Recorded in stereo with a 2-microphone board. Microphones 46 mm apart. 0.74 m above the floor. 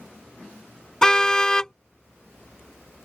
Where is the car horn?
15° left (ahead or behind).